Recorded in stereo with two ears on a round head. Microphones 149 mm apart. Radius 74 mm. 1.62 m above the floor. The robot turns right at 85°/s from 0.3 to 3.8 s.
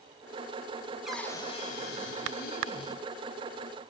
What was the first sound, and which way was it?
A cupboard door, 5° right.